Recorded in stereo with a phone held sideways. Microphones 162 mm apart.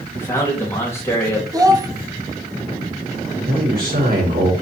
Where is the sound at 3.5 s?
80° right, 5 m.